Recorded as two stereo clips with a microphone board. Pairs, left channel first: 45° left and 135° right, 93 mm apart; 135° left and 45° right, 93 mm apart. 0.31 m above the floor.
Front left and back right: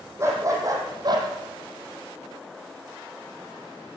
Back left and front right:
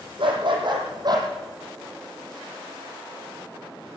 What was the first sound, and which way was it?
A dog barking, 75° right.